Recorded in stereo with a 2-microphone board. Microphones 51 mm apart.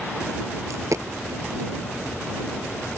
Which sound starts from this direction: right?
A dropped coin, at 0.7 s.